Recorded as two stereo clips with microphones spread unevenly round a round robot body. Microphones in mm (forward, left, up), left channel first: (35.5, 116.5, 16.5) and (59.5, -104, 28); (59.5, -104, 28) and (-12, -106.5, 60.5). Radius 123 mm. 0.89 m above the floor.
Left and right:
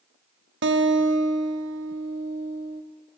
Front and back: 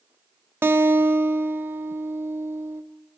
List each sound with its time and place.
0.6 s a guitar: 130° right, 1.2 m